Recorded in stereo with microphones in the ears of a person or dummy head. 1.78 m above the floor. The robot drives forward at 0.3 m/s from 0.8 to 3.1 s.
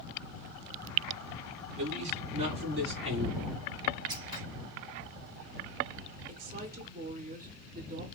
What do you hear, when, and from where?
1.8 s a man speaking: 40° right (ahead or behind), 3 m; by 3.5 s 35° right (ahead or behind), 3.5 m
4.1 s scissors: 25° right (ahead or behind), 2 m
6.3 s a woman speaking: 45° right (ahead or behind), 1.3 m